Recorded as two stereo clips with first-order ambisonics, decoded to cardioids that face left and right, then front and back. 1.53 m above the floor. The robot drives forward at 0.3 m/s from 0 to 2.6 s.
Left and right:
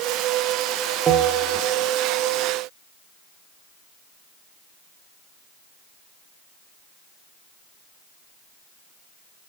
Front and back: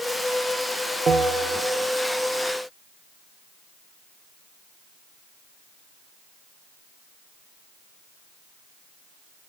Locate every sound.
1.1 s a bell: 140° right, 0.6 m; by 1.9 s 155° right, 0.7 m